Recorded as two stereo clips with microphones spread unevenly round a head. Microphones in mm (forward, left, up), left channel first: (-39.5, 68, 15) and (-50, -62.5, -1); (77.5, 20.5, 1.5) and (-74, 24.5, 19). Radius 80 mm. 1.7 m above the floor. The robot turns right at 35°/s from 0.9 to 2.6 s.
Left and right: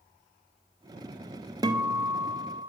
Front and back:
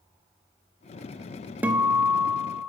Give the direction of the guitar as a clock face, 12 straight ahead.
4 o'clock.